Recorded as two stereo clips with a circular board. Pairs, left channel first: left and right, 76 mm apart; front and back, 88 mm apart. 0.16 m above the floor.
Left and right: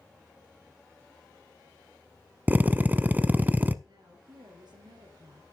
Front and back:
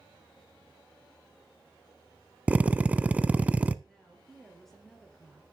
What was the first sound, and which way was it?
A drill, 125° right.